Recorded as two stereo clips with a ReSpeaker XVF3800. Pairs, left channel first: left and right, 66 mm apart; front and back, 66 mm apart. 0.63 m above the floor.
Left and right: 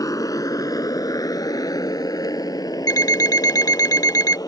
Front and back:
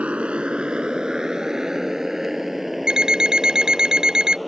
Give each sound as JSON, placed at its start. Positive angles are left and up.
{"t": 0.0, "sound": "a motorcycle", "azimuth_deg": 110}
{"t": 2.9, "sound": "an alarm clock", "azimuth_deg": 100}